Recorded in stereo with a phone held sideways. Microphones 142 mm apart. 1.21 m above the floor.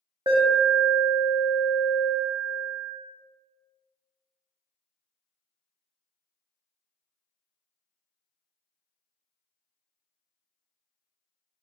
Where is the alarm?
30° right (ahead or behind), 0.7 m.